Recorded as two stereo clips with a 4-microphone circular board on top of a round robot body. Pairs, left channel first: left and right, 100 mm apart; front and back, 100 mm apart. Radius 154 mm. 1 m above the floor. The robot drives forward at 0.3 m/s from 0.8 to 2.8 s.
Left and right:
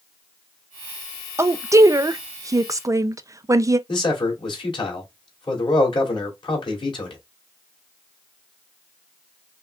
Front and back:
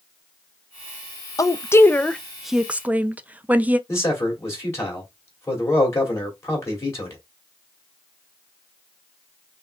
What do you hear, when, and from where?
1.4 s a woman speaking: 40° right, 0.6 m; by 3.8 s 115° right, 0.5 m
3.9 s a man speaking: 60° left, 2.5 m